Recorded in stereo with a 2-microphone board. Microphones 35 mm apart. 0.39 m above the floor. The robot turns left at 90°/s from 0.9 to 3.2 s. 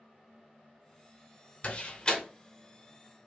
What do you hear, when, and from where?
1.6 s a door slam: 40° left (ahead or behind), 0.9 m; by 2.2 s 20° left (ahead or behind), 0.9 m